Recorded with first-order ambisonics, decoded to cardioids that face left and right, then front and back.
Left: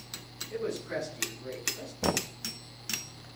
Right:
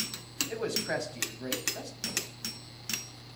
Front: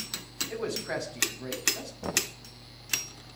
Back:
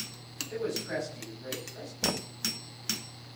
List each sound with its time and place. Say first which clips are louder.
0.5 s a man speaking: right 1 dB, back 1 dB; 70° right, 6.5 m
2.0 s knocking: left 6 dB, front 1 dB; 95° left, 0.6 m